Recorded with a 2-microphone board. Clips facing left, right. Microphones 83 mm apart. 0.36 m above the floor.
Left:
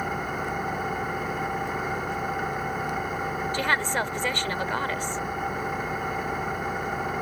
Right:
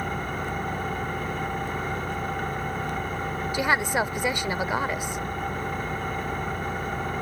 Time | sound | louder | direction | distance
0.0 | an engine running | left 1 dB | 5° left (ahead or behind) | ?
3.5 | a woman speaking | right 3 dB | 15° right (ahead or behind) | ?